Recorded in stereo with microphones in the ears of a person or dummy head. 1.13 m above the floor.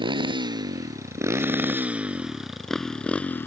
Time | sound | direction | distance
0.0 | a motorcycle | 25° right (ahead or behind) | ?